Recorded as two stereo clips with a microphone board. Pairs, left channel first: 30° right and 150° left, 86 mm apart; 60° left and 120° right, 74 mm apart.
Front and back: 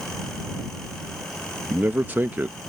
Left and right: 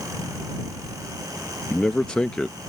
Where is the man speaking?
125° left.